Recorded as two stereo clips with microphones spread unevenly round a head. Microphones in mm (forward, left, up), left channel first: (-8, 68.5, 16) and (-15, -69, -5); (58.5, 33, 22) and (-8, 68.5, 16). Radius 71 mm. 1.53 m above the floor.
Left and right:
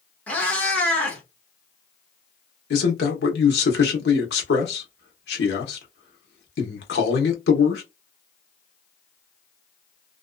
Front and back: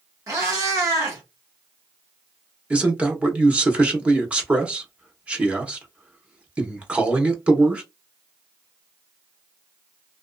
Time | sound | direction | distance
0.3 | a cat meowing | 145° left | 0.9 m
2.7 | a man speaking | 75° left | 1.1 m